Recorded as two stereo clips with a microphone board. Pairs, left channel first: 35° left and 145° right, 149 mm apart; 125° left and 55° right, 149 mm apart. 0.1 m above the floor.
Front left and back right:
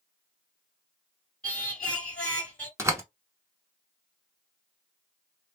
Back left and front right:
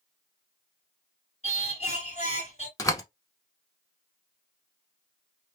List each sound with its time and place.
1.4 s singing: 115° left, 1.8 m
2.8 s a door slam: 165° left, 0.9 m